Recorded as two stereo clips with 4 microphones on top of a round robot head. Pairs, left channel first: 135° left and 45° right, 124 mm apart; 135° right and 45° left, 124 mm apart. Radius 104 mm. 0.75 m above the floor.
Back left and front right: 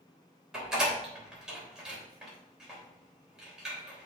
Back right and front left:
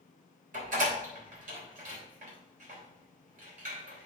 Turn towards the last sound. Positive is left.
turn(degrees=45)